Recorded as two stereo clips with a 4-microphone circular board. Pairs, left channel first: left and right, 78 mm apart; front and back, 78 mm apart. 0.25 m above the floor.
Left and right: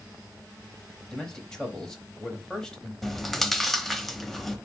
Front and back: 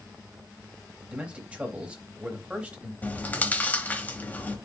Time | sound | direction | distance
1.1 | a man speaking | 155° left | 0.9 m
3.0 | chewing | 10° left | 0.7 m